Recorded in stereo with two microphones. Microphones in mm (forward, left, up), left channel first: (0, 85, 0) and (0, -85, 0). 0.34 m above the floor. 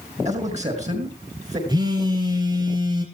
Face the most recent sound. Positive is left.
turn(degrees=-25)  # may be behind; listen again after turning